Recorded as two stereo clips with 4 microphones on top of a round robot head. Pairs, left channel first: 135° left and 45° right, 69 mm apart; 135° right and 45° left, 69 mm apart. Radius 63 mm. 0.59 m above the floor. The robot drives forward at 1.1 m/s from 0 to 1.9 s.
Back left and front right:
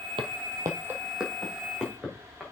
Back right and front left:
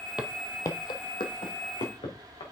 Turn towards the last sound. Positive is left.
turn(degrees=-130)